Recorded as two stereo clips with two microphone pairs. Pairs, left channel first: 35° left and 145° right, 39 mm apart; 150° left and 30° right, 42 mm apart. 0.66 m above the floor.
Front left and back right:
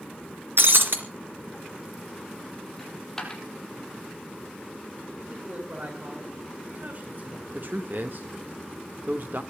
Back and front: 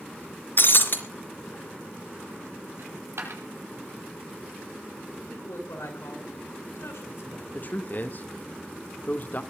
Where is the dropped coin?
45° right, 6 m.